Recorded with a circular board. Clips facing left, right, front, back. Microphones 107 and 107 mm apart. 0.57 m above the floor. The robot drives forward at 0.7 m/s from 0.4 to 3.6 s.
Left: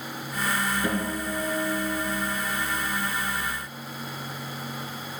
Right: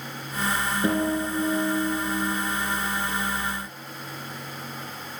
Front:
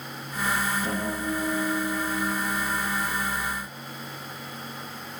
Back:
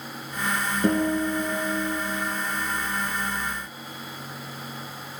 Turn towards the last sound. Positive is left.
turn(degrees=-165)